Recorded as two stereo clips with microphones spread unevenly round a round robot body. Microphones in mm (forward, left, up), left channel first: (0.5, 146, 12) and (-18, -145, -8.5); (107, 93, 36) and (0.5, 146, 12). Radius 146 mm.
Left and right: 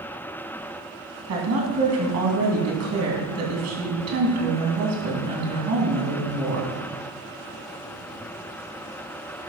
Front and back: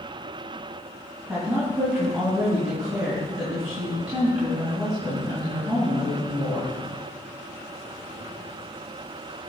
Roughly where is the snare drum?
I don't hear a snare drum.